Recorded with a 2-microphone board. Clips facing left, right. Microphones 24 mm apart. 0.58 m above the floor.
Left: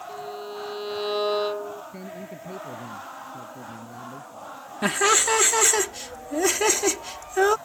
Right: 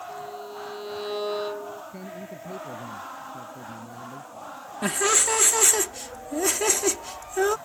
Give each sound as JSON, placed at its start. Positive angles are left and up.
{"t": 0.1, "sound": "a violin", "side_deg": 25}
{"t": 1.9, "sound": "a man speaking", "side_deg": 5}
{"t": 4.8, "sound": "laughter", "side_deg": 20}